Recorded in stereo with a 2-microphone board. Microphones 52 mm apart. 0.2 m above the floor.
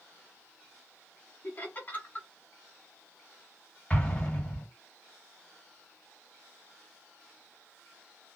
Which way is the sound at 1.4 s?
40° left (ahead or behind).